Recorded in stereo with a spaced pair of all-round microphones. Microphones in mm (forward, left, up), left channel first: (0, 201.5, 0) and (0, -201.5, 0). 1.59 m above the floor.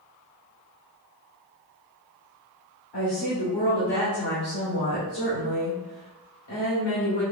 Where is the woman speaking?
80° left, 1.8 m.